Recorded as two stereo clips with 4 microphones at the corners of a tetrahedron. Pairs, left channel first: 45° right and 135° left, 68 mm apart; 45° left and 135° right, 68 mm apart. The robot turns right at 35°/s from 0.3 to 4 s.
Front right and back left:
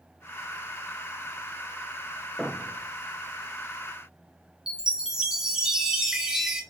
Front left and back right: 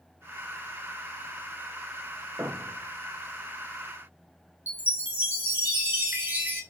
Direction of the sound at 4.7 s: 155° right.